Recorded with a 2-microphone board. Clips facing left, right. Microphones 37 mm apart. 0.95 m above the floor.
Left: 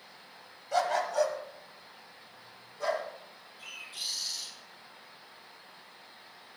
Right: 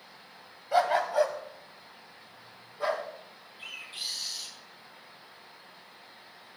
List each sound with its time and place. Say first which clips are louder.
0.7 s a dog barking: right 3 dB; 20° right (ahead or behind), 1.1 m; by 3.0 s 25° right (ahead or behind), 2 m
3.6 s a bird: right 2 dB; 30° right (ahead or behind), 7.5 m